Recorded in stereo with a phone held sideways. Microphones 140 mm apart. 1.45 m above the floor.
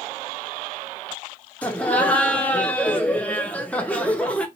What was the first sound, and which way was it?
Laughter, 10° left (ahead or behind).